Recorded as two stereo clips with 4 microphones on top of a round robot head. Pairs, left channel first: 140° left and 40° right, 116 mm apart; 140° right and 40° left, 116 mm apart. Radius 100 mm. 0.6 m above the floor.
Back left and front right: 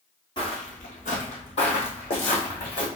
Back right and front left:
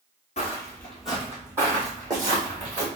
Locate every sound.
0.4 s footsteps: 170° right, 0.7 m; by 2.9 s 95° left, 2.5 m